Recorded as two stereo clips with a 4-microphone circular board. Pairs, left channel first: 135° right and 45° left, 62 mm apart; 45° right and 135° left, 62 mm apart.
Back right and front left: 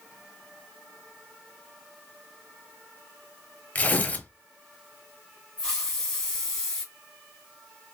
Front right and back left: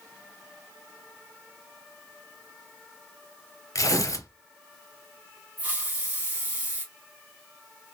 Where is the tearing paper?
70° right, 0.5 m.